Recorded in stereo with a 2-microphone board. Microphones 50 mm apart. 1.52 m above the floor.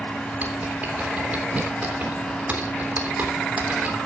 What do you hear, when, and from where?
0.3 s typing on a keyboard: 35° right (ahead or behind), 3.5 m